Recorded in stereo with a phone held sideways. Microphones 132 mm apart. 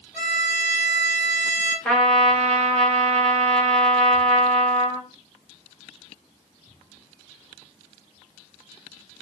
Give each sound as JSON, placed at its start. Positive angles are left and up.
{"t": 0.1, "sound": "a violin", "side_deg": -5, "distance_m": 1.8}
{"t": 1.9, "sound": "a trumpet", "side_deg": 10, "distance_m": 0.7}